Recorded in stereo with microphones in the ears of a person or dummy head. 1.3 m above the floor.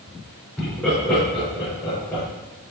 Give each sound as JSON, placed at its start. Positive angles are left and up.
{"t": 0.6, "sound": "laughter", "side_deg": 10, "distance_m": 4.5}